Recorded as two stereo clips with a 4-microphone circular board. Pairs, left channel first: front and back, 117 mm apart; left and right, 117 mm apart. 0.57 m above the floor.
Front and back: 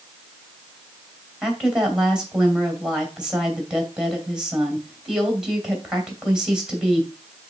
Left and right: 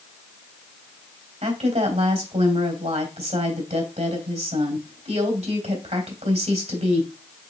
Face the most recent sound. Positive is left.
turn(degrees=-95)